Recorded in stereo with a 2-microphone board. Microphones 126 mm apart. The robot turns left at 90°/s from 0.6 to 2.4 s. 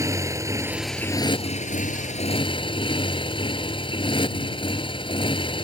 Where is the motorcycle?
155° right; by 5.7 s 40° left.